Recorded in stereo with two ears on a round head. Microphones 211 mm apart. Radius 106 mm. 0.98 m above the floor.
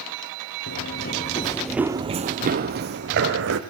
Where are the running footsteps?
55° left (ahead or behind), 1.6 m; by 3.6 s 55° right (ahead or behind), 3 m.